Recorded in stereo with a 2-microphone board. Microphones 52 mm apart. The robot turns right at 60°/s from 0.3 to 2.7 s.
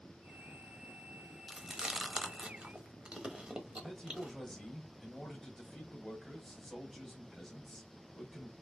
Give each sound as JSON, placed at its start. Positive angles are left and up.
{"t": 1.5, "sound": "chewing", "side_deg": -5, "distance_m": 0.7}
{"t": 3.7, "sound": "a man speaking", "side_deg": 5, "distance_m": 1.4}